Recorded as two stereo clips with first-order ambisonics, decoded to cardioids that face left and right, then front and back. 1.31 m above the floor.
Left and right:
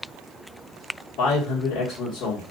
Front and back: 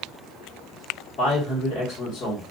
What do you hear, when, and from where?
1.2 s a man speaking: 50° left, 1.3 m